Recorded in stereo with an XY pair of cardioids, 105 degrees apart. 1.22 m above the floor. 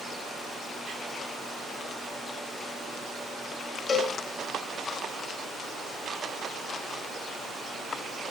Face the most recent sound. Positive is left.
turn(degrees=45)